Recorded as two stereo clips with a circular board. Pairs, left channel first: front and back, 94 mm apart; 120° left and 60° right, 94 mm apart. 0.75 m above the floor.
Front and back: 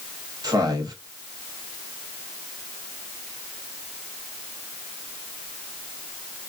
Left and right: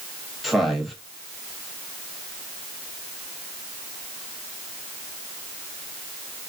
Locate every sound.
0.4 s a man speaking: 150° right, 1.1 m